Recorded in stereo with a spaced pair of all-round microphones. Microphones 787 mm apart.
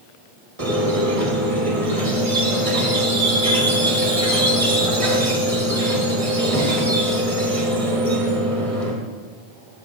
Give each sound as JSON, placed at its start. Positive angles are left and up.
{"t": 0.6, "sound": "a squeak", "side_deg": -45, "distance_m": 1.7}